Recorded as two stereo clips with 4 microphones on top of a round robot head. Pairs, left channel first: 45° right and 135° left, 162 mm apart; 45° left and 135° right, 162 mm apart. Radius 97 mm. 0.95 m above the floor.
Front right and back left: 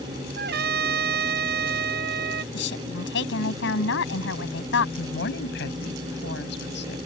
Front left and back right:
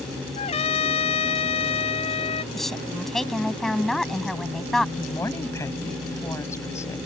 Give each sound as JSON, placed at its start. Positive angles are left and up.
{"t": 0.4, "sound": "a trumpet", "azimuth_deg": 105}
{"t": 2.5, "sound": "a woman speaking", "azimuth_deg": -40}
{"t": 5.0, "sound": "a woman speaking", "azimuth_deg": -25}